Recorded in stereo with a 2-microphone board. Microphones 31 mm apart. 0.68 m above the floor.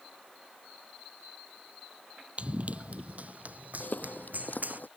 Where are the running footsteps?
45° right (ahead or behind); by 4.8 s 65° right (ahead or behind).